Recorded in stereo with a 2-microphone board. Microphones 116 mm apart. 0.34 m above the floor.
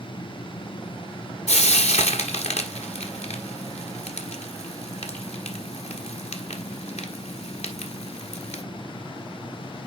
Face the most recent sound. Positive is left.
turn(degrees=70)  # may be behind; listen again after turning